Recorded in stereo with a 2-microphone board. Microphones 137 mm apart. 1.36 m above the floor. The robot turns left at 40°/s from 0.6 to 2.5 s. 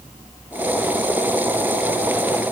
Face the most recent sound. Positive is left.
No sound to turn to.